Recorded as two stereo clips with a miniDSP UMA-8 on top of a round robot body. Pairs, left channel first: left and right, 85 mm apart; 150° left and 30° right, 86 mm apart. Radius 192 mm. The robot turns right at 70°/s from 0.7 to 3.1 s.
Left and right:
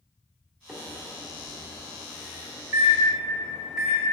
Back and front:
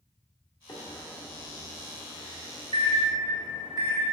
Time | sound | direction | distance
0.7 | a microwave | 170° right | 1.7 m